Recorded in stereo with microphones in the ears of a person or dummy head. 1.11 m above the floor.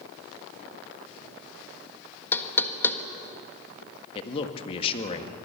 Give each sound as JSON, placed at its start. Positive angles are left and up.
{"t": 2.3, "sound": "knocking", "side_deg": 10, "distance_m": 1.5}
{"t": 4.2, "sound": "a man speaking", "side_deg": 35, "distance_m": 1.9}